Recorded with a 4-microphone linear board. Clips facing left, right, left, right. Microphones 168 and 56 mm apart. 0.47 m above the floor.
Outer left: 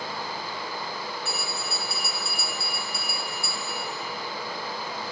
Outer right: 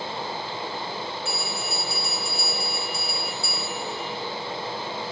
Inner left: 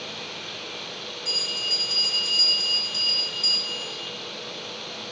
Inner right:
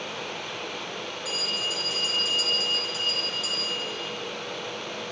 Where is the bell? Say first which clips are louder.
Outer right 2 dB, inner right 1 dB; 60° left (ahead or behind), 2 m.